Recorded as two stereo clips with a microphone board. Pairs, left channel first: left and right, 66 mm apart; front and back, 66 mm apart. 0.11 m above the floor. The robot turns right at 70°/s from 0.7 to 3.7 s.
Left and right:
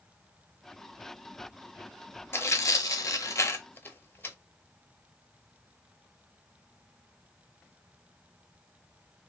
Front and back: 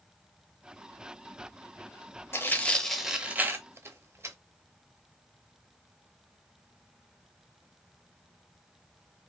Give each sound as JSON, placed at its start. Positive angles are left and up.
{"t": 2.3, "sound": "tearing paper", "azimuth_deg": 45, "distance_m": 0.6}